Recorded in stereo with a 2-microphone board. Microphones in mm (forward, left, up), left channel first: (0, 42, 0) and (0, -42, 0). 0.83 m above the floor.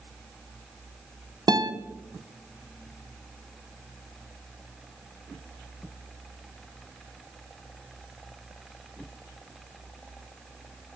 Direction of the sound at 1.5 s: 50° right (ahead or behind).